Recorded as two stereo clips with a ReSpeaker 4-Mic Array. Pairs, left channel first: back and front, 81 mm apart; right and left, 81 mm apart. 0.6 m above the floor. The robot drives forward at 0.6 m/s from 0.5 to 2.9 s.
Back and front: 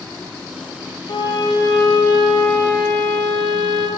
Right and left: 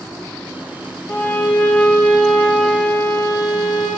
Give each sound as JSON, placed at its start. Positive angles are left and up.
{"t": 1.1, "sound": "a violin", "azimuth_deg": -155, "distance_m": 0.6}